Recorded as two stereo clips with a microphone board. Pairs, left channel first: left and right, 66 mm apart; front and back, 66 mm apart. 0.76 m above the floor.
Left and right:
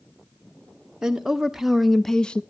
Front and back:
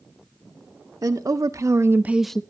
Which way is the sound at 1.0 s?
170° right.